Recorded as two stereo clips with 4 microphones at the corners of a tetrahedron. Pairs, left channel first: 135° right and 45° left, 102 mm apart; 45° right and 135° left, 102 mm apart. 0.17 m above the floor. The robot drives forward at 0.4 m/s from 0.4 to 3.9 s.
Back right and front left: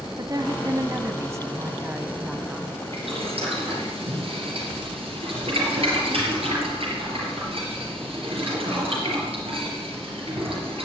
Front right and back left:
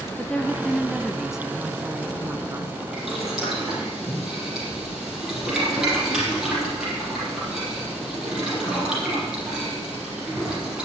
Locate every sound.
0.2 s a woman speaking: 30° left, 1.3 m; by 2.8 s 120° left, 1.1 m
2.9 s boiling: 50° left, 5 m